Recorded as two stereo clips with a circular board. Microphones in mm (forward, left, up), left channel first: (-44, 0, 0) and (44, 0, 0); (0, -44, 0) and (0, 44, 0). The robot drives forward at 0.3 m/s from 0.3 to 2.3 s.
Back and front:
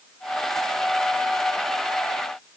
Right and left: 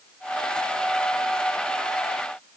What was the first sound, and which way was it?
Only background noise.